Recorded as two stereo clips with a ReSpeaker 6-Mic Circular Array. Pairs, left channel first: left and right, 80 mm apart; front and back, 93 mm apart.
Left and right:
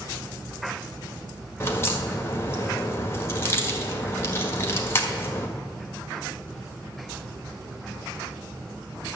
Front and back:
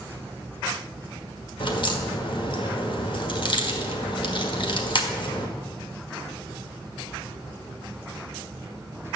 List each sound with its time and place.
1.6 s a crack: 30° left, 1.7 m